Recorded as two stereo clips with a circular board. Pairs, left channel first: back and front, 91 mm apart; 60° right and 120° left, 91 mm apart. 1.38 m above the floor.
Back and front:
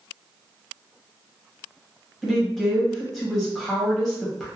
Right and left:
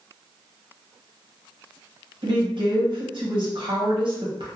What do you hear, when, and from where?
2.2 s a woman speaking: 90° left, 1.1 m